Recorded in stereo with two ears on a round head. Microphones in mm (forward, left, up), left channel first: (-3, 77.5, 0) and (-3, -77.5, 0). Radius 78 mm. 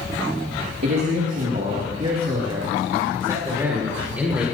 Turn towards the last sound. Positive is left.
turn(degrees=-5)  # may be behind; listen again after turning